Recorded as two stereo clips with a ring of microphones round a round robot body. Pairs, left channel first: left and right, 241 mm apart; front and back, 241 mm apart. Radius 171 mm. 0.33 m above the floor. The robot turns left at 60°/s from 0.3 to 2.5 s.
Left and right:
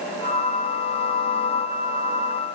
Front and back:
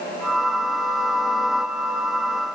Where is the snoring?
No snoring in this recording.